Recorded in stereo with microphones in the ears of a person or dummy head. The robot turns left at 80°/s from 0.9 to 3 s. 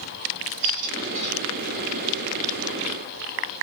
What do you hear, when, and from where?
0.6 s a squeak: 120° right, 2 m; by 1.3 s 155° right, 2 m